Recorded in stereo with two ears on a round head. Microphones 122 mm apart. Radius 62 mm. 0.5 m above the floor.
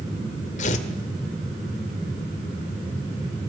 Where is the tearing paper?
55° left (ahead or behind), 1.9 m.